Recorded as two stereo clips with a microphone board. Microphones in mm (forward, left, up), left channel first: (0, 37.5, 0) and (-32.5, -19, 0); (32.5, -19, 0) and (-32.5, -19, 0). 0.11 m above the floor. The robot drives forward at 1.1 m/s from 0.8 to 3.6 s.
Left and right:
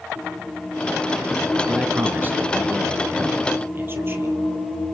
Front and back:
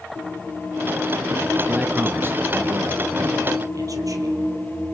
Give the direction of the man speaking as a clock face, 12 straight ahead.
4 o'clock.